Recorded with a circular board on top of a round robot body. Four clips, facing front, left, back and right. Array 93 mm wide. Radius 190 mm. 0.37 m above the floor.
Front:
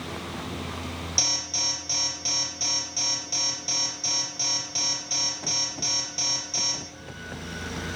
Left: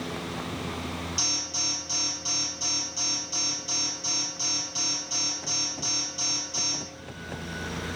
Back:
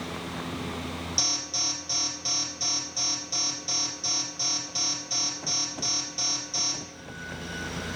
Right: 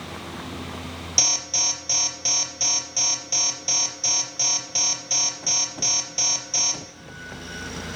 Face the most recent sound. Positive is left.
turn(degrees=-70)